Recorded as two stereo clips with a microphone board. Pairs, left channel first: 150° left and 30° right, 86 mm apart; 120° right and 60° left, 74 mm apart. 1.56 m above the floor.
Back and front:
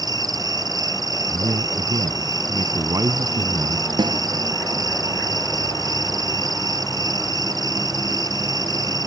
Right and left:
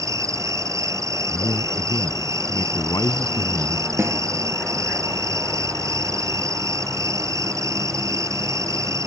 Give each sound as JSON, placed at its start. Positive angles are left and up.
{"t": 0.0, "sound": "an insect", "azimuth_deg": 15}
{"t": 1.3, "sound": "a man speaking", "azimuth_deg": -80}
{"t": 4.0, "sound": "a snare drum", "azimuth_deg": 5}